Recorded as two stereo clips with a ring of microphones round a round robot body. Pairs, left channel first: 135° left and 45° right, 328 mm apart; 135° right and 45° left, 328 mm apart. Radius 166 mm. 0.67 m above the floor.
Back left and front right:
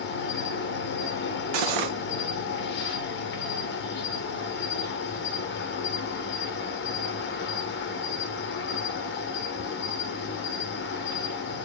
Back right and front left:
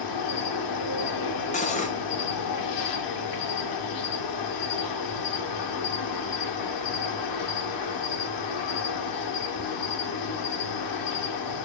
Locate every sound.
0.0 s an insect: 165° right, 0.8 m
1.5 s cutlery clinking: 65° right, 0.5 m